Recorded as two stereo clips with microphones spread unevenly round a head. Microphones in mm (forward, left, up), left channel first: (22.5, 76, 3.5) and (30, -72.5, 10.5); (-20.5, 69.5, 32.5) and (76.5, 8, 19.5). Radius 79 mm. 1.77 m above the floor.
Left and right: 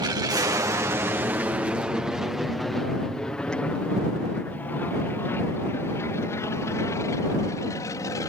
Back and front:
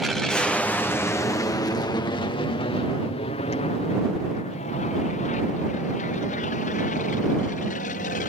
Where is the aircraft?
105° right; by 8.3 s 165° left.